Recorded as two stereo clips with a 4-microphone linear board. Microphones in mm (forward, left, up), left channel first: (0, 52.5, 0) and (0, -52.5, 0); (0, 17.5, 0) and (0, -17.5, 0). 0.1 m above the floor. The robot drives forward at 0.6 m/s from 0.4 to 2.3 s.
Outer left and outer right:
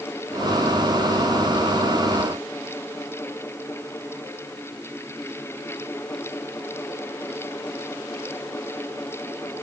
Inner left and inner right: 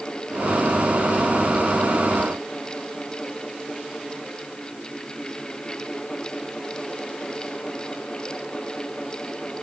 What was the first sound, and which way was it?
Only background noise.